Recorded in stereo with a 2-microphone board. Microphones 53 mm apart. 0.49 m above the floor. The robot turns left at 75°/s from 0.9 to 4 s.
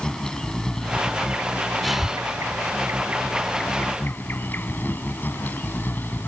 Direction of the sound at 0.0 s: 10° left.